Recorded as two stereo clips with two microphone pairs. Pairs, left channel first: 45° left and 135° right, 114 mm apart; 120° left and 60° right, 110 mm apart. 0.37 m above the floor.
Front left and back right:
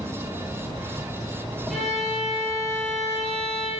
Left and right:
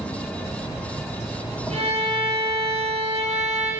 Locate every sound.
0.0 s an insect: 130° right, 2.5 m
1.7 s a violin: 45° right, 3.5 m